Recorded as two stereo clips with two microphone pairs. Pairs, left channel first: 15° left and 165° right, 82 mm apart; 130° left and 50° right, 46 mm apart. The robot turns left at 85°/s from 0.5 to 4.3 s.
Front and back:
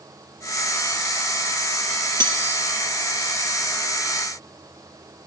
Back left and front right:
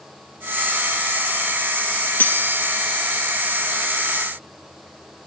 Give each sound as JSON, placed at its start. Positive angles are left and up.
{"t": 2.2, "sound": "cutlery clinking", "azimuth_deg": 170, "distance_m": 1.8}